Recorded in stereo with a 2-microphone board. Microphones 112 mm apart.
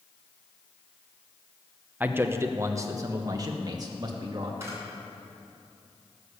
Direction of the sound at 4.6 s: 25° right (ahead or behind).